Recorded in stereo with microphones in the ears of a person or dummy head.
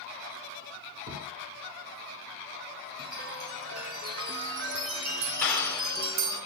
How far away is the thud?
About 5 m.